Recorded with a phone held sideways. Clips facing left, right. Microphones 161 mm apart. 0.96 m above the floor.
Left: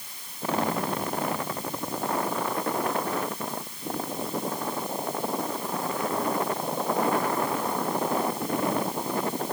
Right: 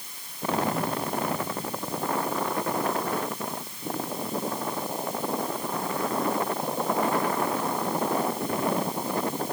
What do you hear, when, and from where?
Only background noise.